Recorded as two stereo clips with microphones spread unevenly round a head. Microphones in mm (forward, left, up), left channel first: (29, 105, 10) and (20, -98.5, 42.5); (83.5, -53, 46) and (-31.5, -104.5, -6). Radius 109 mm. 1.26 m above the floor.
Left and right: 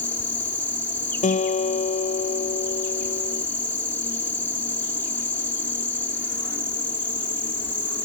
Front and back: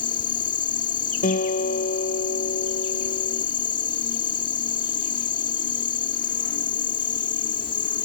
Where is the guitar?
30° left.